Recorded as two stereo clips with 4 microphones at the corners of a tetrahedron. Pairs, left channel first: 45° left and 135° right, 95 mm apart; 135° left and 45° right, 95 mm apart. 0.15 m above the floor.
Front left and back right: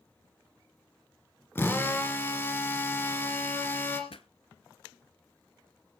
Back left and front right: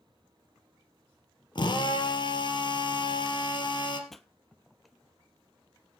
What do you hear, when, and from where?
1.6 s a drill: 110° left, 2.5 m
4.1 s a pop: 45° left, 0.7 m